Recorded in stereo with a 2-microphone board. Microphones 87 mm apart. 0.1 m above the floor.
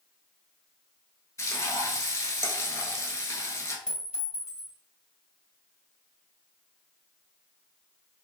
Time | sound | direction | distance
1.4 | frying | 35° left (ahead or behind) | 0.7 m
3.9 | a clink | 10° right (ahead or behind) | 1.7 m